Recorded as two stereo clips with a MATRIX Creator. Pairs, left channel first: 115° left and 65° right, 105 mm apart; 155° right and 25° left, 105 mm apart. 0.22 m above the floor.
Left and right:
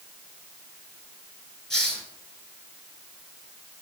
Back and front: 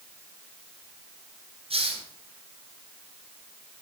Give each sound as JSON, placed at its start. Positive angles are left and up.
{"t": 1.7, "sound": "a hiss", "azimuth_deg": 25, "distance_m": 2.5}